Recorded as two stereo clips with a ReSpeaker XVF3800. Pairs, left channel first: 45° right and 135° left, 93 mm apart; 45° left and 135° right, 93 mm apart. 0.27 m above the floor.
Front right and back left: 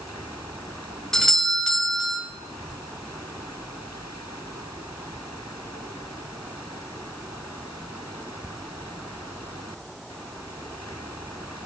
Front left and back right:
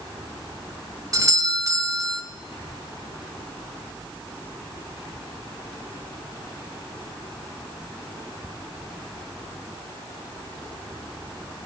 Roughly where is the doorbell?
Behind right.